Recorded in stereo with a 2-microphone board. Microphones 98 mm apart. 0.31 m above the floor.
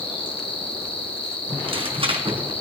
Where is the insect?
65° left (ahead or behind), 2 m.